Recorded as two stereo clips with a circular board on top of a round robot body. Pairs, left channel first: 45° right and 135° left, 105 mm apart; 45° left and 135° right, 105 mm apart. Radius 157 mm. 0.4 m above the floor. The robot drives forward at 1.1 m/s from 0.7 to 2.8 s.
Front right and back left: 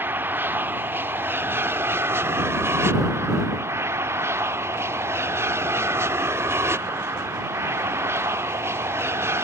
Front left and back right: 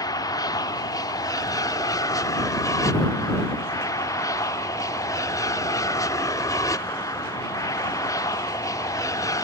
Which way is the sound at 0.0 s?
75° left.